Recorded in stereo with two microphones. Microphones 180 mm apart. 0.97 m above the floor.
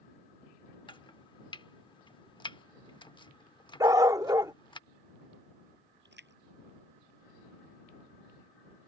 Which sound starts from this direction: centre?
A dog barking, at 3.8 s.